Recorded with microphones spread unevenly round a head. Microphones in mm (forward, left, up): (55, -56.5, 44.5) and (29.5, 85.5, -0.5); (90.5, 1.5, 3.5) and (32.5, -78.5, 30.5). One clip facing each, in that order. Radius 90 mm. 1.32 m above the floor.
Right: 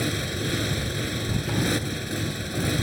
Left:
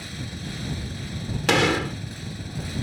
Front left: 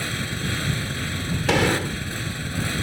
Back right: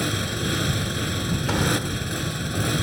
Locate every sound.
0.0 s a motorcycle: 65° right
1.5 s a gunshot: 110° left